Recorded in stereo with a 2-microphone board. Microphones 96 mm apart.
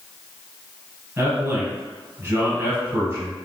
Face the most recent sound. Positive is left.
turn(degrees=-25)  # may be behind; listen again after turning